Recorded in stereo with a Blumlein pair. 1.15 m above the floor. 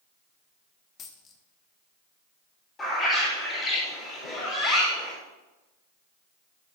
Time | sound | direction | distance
1.0 | a dropped coin | 25° left | 1.2 m
2.8 | a bird | 20° left | 4.5 m